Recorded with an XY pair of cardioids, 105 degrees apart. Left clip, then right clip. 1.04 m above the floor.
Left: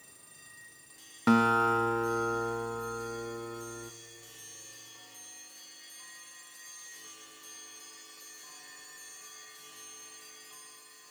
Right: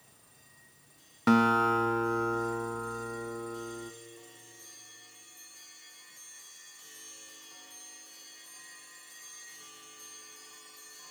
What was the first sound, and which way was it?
A guitar, 5° right.